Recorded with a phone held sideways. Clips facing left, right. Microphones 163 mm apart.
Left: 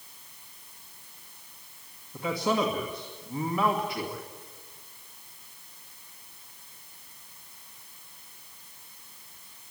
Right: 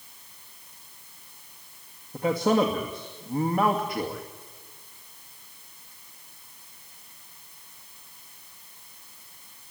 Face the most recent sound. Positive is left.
turn(degrees=-45)  # may be behind; listen again after turning